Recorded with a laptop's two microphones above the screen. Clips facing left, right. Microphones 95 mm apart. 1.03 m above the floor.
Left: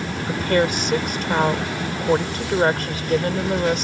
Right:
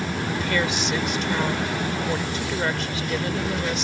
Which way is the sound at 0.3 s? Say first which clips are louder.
Left 7 dB; 50° left (ahead or behind).